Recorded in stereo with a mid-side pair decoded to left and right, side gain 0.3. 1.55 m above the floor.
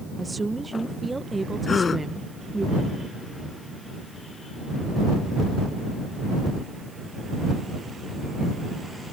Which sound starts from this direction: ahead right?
A woman speaking, at 0.2 s.